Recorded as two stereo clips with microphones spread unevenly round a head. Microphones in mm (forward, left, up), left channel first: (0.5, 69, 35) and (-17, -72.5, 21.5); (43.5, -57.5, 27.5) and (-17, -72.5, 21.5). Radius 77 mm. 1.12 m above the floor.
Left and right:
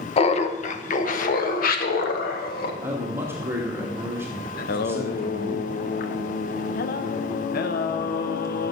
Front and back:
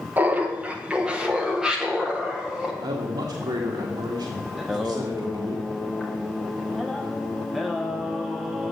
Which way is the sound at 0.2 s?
130° left.